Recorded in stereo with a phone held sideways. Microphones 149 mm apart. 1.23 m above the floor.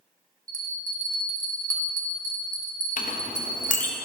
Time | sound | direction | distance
0.5 | a bell | 25° right (ahead or behind) | 1.7 m
3.0 | a clink | 60° left (ahead or behind) | 1.0 m